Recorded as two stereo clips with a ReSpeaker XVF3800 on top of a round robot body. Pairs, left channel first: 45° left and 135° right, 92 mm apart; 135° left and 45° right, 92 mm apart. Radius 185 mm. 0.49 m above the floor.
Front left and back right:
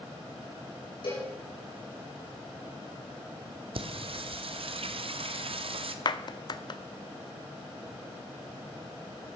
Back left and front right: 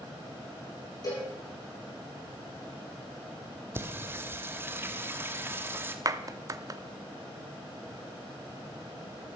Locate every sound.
1.0 s a cowbell: 85° left, 8.5 m
3.8 s singing: 110° right, 1.1 m
6.0 s a clap: 5° left, 0.8 m